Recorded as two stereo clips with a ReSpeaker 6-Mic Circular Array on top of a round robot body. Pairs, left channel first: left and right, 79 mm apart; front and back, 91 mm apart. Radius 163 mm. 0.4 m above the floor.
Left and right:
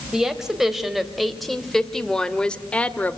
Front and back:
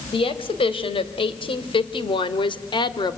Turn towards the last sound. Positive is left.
turn(degrees=25)